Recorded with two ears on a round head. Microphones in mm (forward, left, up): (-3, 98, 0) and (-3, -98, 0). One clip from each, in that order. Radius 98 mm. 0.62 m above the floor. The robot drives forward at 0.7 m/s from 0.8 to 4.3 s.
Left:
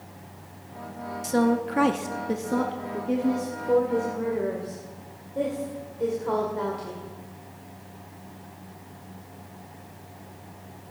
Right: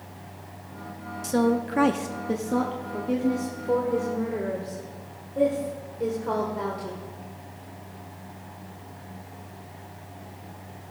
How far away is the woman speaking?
About 0.7 m.